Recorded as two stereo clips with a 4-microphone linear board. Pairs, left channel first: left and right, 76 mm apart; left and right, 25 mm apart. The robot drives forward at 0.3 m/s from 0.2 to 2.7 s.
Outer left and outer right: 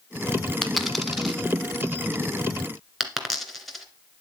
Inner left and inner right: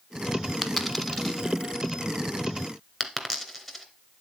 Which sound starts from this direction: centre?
A dropped coin, at 0.6 s.